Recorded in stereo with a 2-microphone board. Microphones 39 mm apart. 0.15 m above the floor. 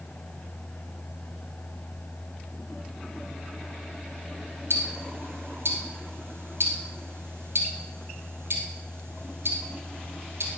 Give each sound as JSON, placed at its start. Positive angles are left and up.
{"t": 4.7, "sound": "ticking", "side_deg": -75, "distance_m": 3.0}